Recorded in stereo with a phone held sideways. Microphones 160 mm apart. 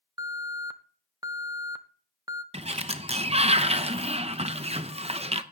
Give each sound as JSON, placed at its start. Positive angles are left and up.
{"t": 0.2, "sound": "an alarm", "side_deg": -25, "distance_m": 0.6}
{"t": 2.5, "sound": "a sliding door", "side_deg": -40, "distance_m": 0.7}